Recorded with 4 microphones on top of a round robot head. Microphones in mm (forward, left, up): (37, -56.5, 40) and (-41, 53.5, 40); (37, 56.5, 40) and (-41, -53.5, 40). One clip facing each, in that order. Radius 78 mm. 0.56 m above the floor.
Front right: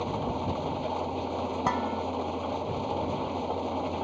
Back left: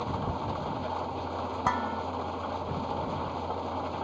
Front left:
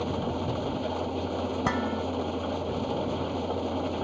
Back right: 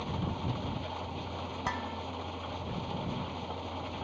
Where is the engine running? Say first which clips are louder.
Front right 2 dB, front left 7 dB; 15° left.